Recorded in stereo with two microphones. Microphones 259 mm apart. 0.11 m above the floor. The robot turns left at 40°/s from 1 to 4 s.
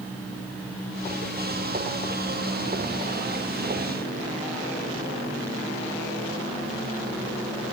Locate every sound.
Only background noise.